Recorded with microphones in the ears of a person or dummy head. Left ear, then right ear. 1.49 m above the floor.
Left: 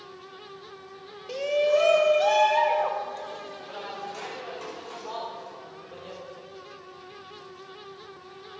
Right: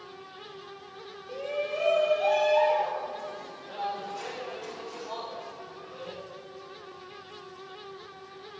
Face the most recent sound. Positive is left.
turn(degrees=55)  # may be behind; listen again after turning